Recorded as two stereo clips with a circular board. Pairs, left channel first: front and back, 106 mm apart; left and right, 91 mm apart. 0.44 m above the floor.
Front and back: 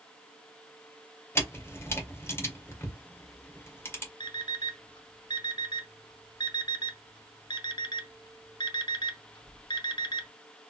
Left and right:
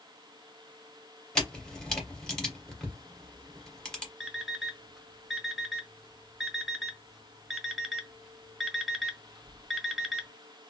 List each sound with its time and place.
1.4 s a camera shutter: 25° left, 1.4 m
4.2 s an alarm clock: straight ahead, 0.7 m